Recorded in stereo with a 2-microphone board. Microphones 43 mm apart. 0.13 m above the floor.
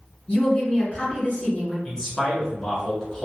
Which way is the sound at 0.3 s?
20° left (ahead or behind).